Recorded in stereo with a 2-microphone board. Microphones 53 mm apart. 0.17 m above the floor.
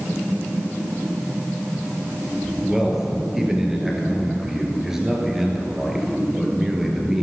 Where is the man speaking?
10° right (ahead or behind), 2.5 m.